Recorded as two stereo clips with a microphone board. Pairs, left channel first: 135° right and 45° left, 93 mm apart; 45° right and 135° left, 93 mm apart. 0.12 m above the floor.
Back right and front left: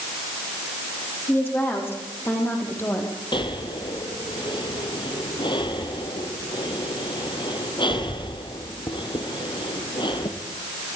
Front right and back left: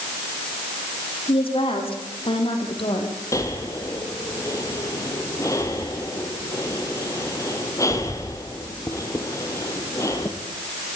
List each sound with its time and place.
1.3 s a woman speaking: 65° right, 6 m; by 3.1 s 70° right, 5 m
3.3 s breathing: 100° right, 2 m